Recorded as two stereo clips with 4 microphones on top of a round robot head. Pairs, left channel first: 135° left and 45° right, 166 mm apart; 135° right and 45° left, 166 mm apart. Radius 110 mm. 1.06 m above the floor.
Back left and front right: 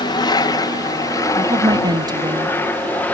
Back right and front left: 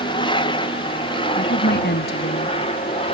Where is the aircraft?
175° right; by 3.1 s 155° right.